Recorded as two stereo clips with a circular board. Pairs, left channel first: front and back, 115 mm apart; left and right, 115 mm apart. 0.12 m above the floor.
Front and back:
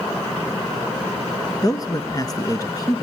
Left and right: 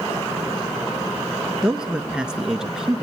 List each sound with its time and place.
1.6 s a man speaking: 10° right, 1.3 m